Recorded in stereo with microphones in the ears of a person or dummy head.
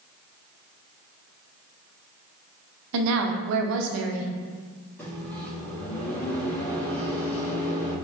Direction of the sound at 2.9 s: 65° right (ahead or behind).